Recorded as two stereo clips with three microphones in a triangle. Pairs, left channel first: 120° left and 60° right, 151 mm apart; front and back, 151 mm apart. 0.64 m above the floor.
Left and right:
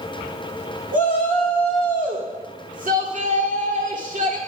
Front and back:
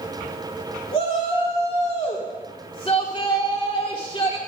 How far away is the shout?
About 1.7 m.